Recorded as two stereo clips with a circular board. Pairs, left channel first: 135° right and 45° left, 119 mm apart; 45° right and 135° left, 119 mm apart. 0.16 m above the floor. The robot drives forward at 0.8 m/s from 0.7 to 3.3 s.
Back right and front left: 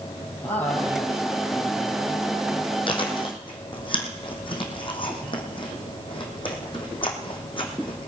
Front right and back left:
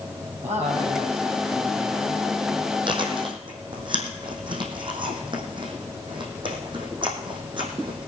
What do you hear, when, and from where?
0.4 s a man speaking: 150° left, 4 m; by 2.7 s 160° left, 5 m
2.9 s chewing: straight behind, 2 m